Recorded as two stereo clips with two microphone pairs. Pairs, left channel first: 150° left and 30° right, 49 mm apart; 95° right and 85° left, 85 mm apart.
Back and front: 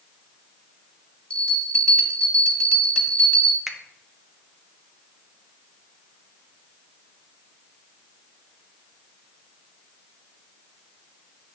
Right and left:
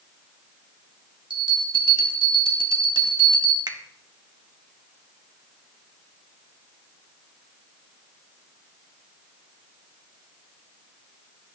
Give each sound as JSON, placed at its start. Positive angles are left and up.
{"t": 1.3, "sound": "a bell", "azimuth_deg": 90, "distance_m": 1.3}
{"t": 3.7, "sound": "a finger snap", "azimuth_deg": 55, "distance_m": 0.9}